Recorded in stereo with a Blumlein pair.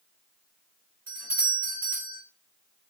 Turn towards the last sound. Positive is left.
turn(degrees=-60)